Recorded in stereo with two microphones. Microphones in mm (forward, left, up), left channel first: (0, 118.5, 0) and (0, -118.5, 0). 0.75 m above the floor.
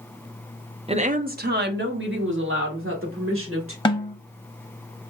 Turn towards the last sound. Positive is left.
turn(degrees=20)  # may be behind; listen again after turning